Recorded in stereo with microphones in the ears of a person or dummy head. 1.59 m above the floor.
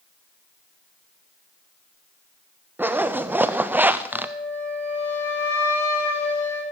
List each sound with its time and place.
2.8 s a zipper: 10° right (ahead or behind), 0.5 m
4.1 s a flute: 15° left (ahead or behind), 8 m